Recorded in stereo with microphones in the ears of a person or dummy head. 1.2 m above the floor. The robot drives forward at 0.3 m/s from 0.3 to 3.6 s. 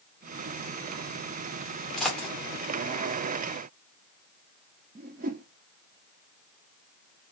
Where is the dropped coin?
5° left (ahead or behind), 1.3 m.